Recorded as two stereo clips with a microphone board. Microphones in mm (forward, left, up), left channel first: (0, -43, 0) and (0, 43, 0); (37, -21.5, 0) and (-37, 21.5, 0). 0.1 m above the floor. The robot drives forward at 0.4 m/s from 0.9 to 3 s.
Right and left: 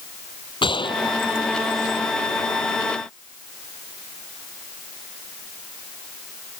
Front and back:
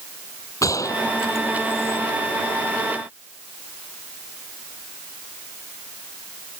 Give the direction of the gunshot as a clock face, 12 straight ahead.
3 o'clock.